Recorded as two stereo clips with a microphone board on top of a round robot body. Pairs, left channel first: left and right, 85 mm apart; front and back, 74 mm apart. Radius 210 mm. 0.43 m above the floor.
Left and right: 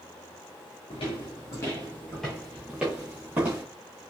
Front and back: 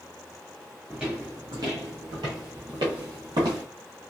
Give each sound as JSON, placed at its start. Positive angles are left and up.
{"t": 0.9, "sound": "footsteps", "azimuth_deg": 100, "distance_m": 0.6}